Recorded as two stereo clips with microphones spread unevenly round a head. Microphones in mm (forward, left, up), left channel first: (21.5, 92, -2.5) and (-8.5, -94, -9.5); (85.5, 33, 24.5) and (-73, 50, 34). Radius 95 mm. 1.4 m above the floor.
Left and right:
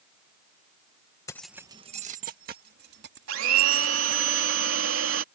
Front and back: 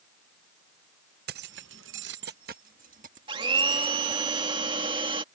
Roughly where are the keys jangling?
Behind left.